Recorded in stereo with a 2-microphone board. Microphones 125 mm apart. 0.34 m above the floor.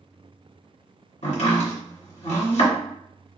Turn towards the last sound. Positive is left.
turn(degrees=70)  # may be behind; listen again after turning